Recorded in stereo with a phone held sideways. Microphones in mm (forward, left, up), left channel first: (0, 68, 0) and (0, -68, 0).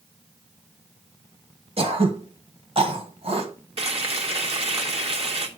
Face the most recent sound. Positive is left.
turn(degrees=-50)  # may be behind; listen again after turning